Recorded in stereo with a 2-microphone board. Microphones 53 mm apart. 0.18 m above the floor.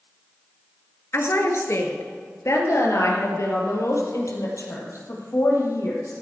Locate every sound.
1.1 s a woman speaking: 55° left (ahead or behind), 2 m; by 6.1 s 80° left, 5 m